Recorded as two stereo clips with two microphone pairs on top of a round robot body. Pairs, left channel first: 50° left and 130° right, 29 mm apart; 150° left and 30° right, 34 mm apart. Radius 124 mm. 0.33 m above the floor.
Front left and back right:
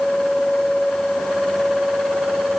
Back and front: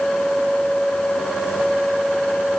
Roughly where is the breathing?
I don't hear breathing.